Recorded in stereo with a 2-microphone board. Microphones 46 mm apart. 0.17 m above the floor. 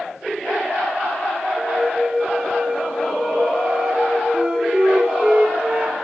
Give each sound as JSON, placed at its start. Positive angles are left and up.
{"t": 1.6, "sound": "a flute", "side_deg": -20, "distance_m": 2.5}
{"t": 4.3, "sound": "a flute", "side_deg": -25, "distance_m": 1.0}